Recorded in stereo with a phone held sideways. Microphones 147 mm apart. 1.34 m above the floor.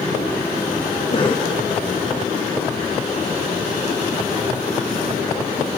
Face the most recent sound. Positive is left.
turn(degrees=35)  # may be behind; listen again after turning